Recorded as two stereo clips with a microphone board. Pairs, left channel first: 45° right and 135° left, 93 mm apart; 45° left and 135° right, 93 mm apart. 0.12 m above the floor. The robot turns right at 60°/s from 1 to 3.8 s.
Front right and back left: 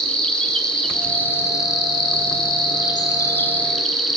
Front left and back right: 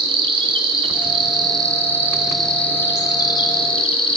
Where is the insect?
125° right, 0.7 m; by 4.2 s 40° left, 0.7 m.